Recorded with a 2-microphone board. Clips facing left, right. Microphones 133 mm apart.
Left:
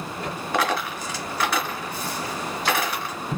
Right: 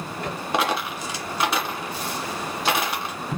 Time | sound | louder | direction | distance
0.5 | a dropped coin | even | 25° right (ahead or behind) | 1.8 m